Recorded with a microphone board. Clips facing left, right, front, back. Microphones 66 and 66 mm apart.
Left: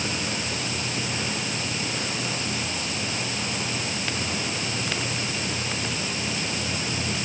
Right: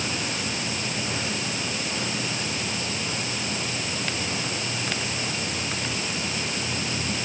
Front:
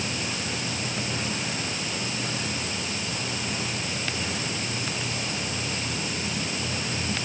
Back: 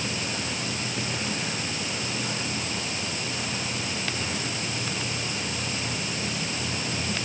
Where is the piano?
I don't hear a piano.